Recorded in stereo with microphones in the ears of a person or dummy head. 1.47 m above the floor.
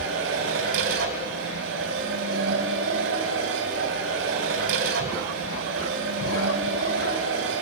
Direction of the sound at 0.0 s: 65° right (ahead or behind).